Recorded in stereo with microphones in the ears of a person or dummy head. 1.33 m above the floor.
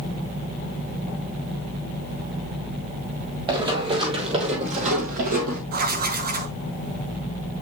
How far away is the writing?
About 1.1 m.